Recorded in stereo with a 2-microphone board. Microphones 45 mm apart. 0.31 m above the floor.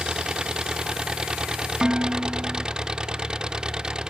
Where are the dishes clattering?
20° right (ahead or behind).